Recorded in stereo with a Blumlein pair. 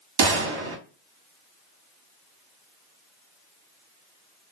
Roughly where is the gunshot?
Ahead right.